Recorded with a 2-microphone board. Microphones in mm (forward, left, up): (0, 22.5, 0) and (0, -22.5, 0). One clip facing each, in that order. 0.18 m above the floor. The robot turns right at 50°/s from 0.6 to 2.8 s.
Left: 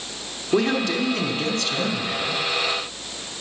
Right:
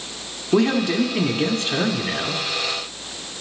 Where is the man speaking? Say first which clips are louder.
Right 3 dB; 10° right (ahead or behind), 1.3 m; by 2.4 s 20° right (ahead or behind), 1.3 m.